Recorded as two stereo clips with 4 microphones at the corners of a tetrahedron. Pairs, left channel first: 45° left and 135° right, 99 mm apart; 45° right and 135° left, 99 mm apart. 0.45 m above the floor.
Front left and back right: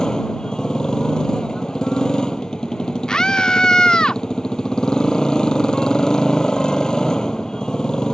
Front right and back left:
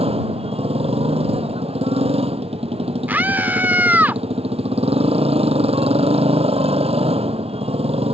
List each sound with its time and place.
0.0 s a motorcycle: 130° left
3.1 s a scream: 110° left